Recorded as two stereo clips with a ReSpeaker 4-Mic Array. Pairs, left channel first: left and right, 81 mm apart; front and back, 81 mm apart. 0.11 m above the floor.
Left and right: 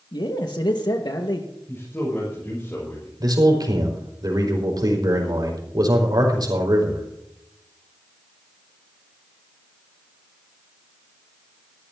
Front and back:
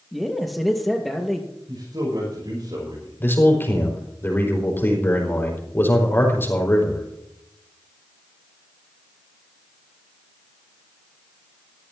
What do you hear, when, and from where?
0.1 s a man speaking: 90° left, 2.5 m
1.7 s a man speaking: 155° left, 6.5 m
3.2 s a man speaking: 60° right, 4.5 m